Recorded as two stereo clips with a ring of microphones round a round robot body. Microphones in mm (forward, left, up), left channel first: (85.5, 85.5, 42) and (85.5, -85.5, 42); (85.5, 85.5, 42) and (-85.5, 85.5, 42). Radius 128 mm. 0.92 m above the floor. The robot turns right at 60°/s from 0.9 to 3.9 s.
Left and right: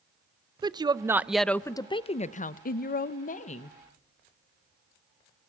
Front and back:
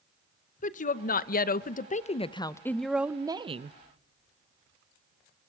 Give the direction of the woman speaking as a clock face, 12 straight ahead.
1 o'clock.